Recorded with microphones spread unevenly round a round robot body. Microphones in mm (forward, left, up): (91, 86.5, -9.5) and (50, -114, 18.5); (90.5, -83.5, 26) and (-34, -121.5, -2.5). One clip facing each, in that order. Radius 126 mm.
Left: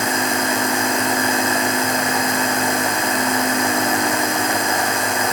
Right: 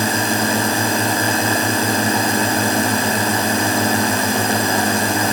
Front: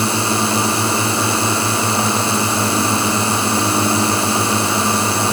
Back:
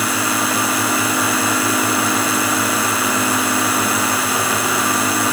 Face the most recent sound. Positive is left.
turn(degrees=-45)